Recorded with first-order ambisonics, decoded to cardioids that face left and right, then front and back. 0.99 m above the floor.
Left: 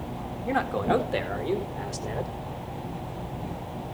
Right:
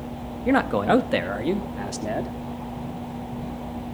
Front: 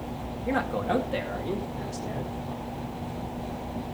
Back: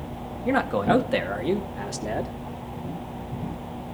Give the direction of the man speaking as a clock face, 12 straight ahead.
4 o'clock.